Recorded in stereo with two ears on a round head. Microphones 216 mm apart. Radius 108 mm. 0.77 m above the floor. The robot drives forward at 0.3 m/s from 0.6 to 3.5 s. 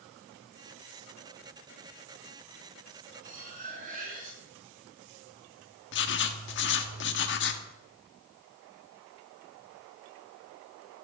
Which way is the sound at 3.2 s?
35° right (ahead or behind).